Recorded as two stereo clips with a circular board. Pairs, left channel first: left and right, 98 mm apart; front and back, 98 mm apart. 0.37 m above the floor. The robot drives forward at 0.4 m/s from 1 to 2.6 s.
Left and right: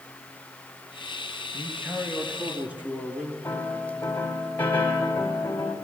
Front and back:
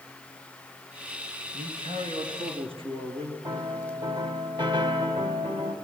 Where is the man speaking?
165° right, 4 m.